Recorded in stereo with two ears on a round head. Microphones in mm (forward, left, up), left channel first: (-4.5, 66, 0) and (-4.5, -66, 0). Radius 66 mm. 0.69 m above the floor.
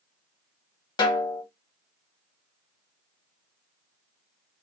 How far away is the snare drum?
About 0.8 m.